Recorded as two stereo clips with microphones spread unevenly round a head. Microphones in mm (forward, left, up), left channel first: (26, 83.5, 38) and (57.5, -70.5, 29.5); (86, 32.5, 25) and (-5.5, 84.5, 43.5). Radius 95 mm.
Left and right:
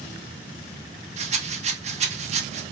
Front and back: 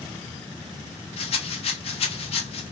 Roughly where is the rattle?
Ahead right.